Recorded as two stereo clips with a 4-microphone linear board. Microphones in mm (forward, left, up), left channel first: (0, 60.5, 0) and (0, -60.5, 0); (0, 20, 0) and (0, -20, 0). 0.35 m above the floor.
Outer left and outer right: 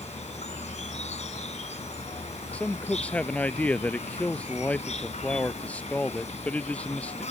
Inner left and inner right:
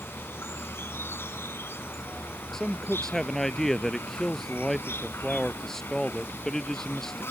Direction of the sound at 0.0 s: 70° left (ahead or behind).